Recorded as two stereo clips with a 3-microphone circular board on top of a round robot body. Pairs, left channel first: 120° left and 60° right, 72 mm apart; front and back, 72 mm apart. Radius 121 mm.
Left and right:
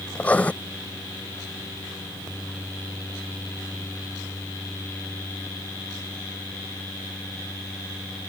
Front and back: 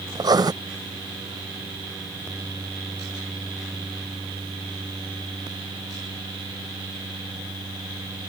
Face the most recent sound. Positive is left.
turn(degrees=-170)